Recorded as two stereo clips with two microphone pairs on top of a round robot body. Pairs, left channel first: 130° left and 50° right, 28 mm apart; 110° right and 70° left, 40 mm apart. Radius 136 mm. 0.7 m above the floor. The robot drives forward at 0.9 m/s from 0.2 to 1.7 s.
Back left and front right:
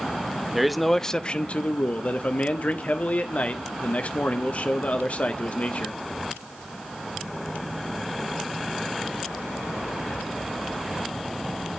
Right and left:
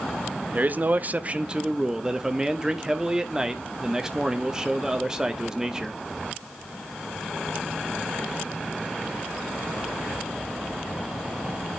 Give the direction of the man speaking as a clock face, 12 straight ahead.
11 o'clock.